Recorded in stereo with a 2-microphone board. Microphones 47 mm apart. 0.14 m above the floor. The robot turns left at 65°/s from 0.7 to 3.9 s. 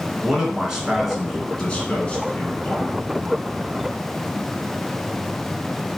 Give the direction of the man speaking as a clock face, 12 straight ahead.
5 o'clock.